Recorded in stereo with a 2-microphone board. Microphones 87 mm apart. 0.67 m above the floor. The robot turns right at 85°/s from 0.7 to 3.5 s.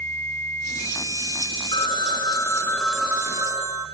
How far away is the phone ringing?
About 5 m.